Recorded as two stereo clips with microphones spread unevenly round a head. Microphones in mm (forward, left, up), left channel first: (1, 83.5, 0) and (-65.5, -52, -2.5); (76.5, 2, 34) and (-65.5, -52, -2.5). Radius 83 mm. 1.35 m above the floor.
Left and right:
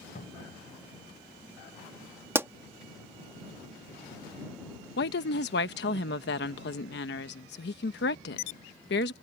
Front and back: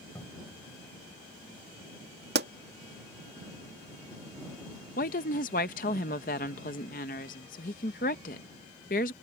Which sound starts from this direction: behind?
A pop, at 2.4 s.